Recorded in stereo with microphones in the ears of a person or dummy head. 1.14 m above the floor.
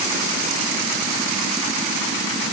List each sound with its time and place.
Only background noise.